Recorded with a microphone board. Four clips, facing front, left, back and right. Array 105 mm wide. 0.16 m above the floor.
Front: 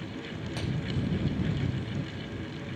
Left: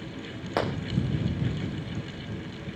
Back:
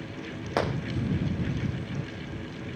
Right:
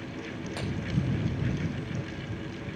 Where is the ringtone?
I don't hear a ringtone.